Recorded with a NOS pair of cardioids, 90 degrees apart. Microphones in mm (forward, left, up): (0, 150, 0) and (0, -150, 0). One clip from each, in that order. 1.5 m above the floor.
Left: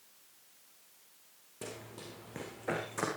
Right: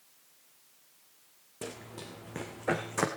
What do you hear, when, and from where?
1.6 s running footsteps: 25° right, 5 m; by 3.1 s 50° right, 4 m